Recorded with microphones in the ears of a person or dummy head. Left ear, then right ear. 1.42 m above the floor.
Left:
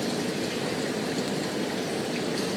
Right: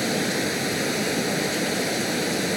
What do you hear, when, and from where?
0.0 s running water: 70° right (ahead or behind)